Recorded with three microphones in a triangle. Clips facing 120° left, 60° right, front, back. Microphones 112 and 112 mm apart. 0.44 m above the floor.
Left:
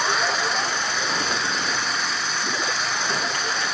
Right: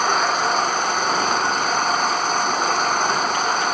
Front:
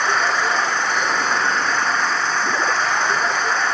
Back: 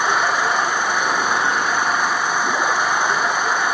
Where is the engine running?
100° right.